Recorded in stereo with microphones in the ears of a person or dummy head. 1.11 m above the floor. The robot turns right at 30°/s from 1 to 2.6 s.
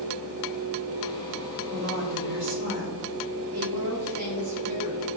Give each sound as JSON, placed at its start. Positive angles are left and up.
{"t": 1.7, "sound": "a woman speaking", "side_deg": -50, "distance_m": 3.5}
{"t": 3.5, "sound": "a woman speaking", "side_deg": -80, "distance_m": 3.0}